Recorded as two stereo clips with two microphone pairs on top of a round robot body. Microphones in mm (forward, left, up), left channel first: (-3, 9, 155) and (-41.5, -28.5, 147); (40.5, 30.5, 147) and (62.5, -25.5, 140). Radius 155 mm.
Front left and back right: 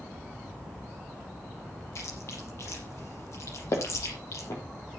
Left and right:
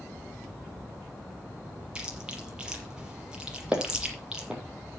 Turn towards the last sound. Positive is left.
turn(degrees=10)